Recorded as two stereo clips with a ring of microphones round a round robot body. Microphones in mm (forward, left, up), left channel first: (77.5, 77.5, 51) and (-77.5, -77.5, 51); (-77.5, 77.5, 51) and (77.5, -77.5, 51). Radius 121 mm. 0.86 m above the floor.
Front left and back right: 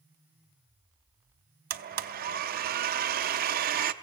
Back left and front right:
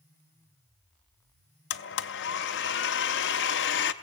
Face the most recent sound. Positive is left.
turn(degrees=175)